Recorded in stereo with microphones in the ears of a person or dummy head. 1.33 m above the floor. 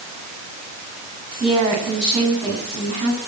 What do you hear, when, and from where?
1.4 s a woman speaking: 45° right (ahead or behind), 9.5 m